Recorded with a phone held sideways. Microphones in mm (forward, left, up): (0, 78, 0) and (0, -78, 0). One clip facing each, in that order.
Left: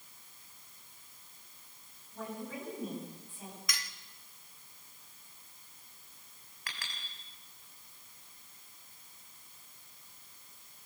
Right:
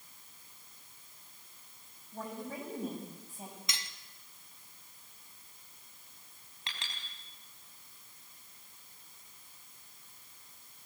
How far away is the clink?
About 4.5 m.